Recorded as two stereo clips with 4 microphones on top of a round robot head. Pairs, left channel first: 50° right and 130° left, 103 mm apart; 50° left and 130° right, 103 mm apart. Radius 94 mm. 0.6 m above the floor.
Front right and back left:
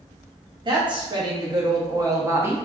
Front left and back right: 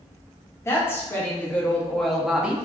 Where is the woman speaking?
110° left, 1.6 m; by 2.7 s 175° left, 1.0 m.